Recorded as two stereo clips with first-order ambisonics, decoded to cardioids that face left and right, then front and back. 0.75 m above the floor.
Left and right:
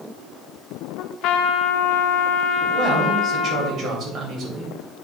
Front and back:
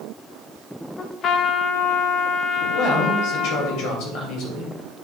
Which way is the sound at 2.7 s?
35° right.